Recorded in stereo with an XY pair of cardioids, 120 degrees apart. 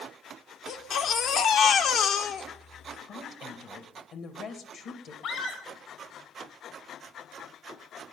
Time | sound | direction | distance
0.7 | a baby crying | 65° left | 1.3 m
3.1 | a woman speaking | 60° left | 2 m
5.2 | a scream | 70° left | 4.5 m